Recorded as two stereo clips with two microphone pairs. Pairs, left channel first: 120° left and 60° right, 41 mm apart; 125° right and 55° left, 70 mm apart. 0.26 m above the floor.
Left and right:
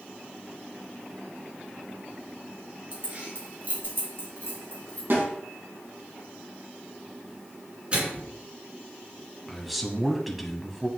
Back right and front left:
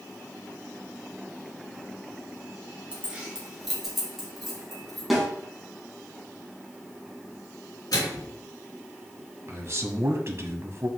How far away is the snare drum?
About 4 m.